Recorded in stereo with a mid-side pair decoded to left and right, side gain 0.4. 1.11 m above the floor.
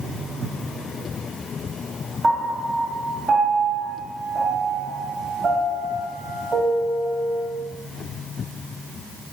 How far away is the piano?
About 1.7 m.